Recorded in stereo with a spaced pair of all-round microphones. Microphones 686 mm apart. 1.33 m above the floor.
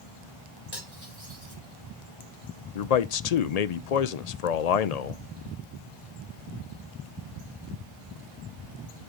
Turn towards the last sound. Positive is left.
turn(degrees=65)  # may be behind; listen again after turning